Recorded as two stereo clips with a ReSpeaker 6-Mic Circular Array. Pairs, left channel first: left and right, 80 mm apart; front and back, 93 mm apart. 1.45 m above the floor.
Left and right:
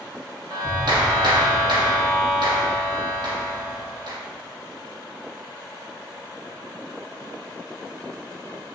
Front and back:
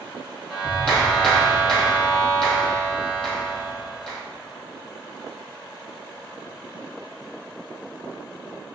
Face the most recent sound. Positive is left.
turn(degrees=-80)